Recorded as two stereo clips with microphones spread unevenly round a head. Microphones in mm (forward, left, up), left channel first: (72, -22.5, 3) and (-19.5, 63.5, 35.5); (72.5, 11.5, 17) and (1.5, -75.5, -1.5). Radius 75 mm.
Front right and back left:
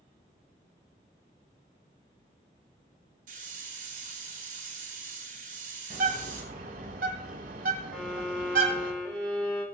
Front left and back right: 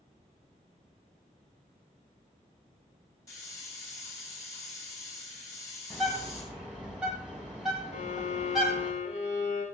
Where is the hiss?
120° left, 4 m.